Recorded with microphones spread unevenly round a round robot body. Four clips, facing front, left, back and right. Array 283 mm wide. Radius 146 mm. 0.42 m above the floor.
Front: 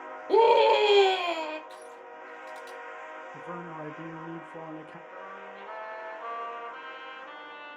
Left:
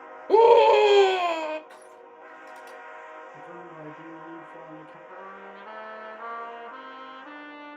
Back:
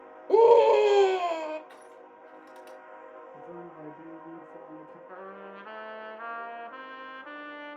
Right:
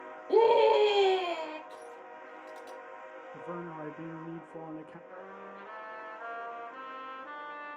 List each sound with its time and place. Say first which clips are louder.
0.3 s a scream: left 7 dB, back 2 dB; 100° left, 1.8 m
1.7 s crushing: right 1 dB, front 4 dB; 110° left, 4.5 m
3.3 s a man speaking: right 1 dB, front 5 dB; 95° right, 0.8 m
5.1 s a trumpet: left 5 dB, back 2 dB; 130° left, 2.5 m